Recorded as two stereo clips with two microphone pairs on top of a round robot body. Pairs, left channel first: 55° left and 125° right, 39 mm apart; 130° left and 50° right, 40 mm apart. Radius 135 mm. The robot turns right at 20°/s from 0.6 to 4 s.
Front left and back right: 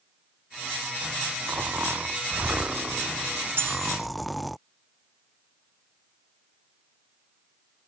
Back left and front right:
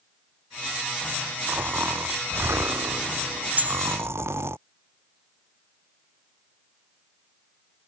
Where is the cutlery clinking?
100° right; by 4.0 s 90° right.